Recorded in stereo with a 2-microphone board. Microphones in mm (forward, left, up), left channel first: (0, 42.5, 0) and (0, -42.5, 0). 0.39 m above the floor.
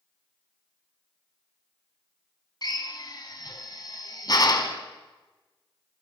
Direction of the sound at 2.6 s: 45° left (ahead or behind).